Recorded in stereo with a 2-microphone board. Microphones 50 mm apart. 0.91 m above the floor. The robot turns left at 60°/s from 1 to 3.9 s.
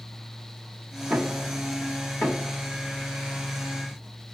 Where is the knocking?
10° right (ahead or behind), 2 m; by 2.5 s 65° left (ahead or behind), 2 m.